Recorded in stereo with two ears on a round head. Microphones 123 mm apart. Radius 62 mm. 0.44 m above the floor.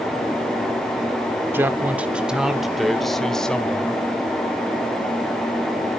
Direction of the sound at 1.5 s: 15° right (ahead or behind).